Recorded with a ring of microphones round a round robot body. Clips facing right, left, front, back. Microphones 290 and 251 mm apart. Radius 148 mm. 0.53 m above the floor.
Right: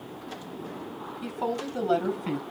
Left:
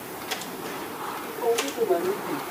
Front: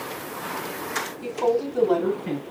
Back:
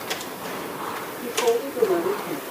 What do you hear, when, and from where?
1.2 s a woman speaking: 60° right, 6 m; by 2.4 s 50° right, 5.5 m